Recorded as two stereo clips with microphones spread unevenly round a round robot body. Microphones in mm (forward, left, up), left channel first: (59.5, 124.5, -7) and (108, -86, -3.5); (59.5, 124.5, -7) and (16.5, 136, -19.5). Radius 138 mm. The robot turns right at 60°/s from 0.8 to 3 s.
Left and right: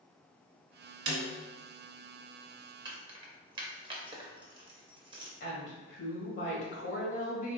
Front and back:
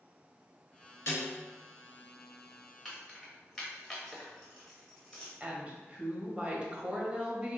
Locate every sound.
1.1 s a snare drum: 55° right, 1.2 m; by 1.3 s 40° right, 1.2 m
2.9 s keys jangling: 130° right, 0.5 m; by 5.3 s 120° right, 0.5 m
5.4 s a woman speaking: 120° left, 1.3 m